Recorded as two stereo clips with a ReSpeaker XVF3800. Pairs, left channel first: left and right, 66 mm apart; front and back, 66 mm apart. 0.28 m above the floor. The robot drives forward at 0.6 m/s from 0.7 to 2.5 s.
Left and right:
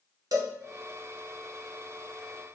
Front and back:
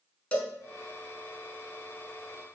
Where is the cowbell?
70° right, 0.6 m.